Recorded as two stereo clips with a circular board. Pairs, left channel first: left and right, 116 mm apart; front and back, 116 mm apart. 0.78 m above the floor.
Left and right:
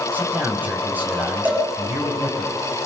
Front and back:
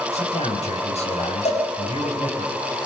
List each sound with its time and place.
0.1 s a man speaking: 15° right, 6 m
1.4 s a cowbell: 15° right, 7 m